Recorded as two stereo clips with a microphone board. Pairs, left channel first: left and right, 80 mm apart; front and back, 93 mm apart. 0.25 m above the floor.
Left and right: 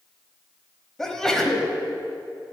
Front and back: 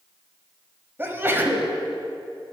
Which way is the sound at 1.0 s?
165° left.